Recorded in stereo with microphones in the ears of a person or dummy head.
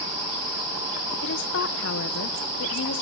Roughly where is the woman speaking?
Left.